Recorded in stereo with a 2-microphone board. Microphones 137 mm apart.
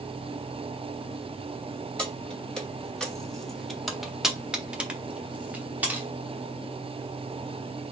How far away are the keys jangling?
About 1.4 m.